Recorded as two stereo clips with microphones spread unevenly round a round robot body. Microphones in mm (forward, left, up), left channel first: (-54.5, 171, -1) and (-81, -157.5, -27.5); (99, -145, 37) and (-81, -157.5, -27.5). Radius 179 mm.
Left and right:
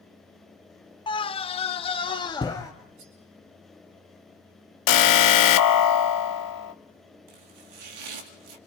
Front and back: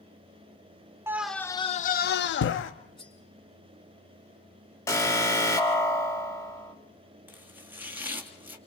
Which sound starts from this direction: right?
Chopping, at 7.3 s.